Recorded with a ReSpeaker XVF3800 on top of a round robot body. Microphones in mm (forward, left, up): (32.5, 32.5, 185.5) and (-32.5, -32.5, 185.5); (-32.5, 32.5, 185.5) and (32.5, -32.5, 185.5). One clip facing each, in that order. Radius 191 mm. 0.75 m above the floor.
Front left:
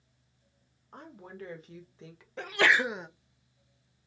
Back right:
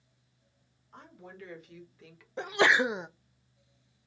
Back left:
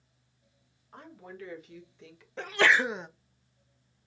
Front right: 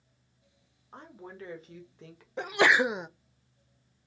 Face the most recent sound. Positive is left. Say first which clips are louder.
# back right 1 dB, front right 1 dB
turn(degrees=-95)